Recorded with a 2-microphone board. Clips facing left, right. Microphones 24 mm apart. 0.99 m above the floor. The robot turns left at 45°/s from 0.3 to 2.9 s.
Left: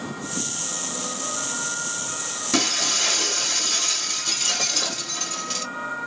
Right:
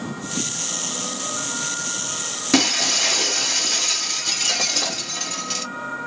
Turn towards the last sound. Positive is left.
turn(degrees=-20)  # may be behind; listen again after turning